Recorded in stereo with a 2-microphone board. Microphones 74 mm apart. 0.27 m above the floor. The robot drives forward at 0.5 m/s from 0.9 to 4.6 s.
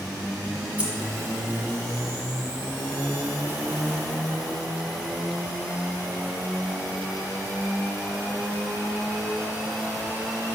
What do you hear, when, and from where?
0.8 s keys jangling: 20° right (ahead or behind), 1.3 m